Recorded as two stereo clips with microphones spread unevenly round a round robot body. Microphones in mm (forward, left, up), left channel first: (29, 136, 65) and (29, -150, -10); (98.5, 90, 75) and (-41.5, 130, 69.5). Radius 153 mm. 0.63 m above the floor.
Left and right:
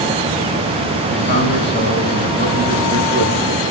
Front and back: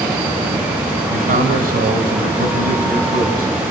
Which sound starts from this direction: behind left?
A man speaking, at 1.1 s.